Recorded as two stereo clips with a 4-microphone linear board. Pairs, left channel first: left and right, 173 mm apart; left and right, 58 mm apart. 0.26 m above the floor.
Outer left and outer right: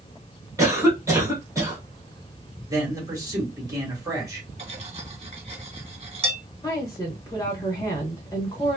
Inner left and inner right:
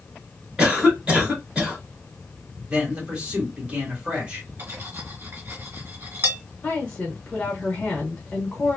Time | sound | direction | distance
0.6 | a cough | 15° right (ahead or behind) | 1.9 m
2.7 | a man speaking | 20° right (ahead or behind) | 1.5 m
4.6 | cutlery clinking | 35° right (ahead or behind) | 1.5 m
6.6 | a woman speaking | 20° left (ahead or behind) | 0.9 m